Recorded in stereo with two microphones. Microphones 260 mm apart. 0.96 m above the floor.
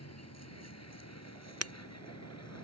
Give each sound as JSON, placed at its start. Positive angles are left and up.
{"t": 0.0, "sound": "a vehicle", "side_deg": 75}
{"t": 1.6, "sound": "breaking glass", "side_deg": -65}